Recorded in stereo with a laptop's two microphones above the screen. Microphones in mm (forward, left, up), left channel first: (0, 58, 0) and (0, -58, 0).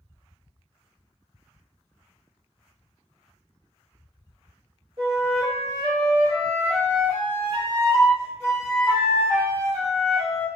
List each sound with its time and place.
5.0 s a flute: 55° right (ahead or behind), 1.2 m